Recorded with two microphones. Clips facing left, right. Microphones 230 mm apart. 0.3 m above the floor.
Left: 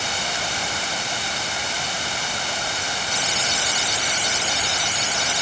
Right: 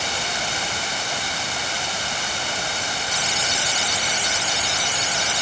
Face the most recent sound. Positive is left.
No sound to turn to.